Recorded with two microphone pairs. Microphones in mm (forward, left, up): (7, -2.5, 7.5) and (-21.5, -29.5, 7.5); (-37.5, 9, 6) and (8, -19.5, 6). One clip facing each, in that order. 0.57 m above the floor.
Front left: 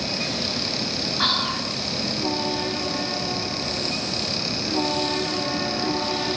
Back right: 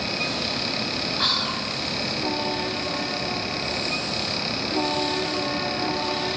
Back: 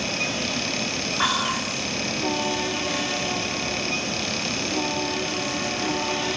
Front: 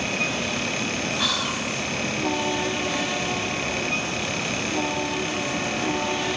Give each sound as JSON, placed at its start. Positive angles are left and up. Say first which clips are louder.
{"t": 1.2, "sound": "whispering", "louder": "front left 3 dB, back 2 dB", "azimuth_deg": 110, "distance_m": 1.1}